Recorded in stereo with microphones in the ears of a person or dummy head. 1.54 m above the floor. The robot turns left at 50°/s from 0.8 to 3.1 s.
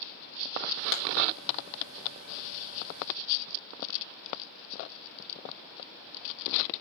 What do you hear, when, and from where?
0.9 s a clap: 65° left (ahead or behind), 1.4 m; by 1.0 s 60° left (ahead or behind), 1.4 m